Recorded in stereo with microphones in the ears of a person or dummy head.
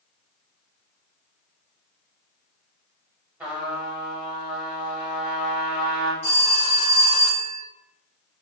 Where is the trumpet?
10° right (ahead or behind), 0.7 m.